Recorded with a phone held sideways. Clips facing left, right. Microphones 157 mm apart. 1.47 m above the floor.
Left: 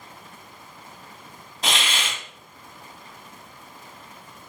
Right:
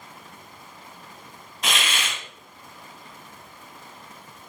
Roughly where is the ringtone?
I don't hear a ringtone.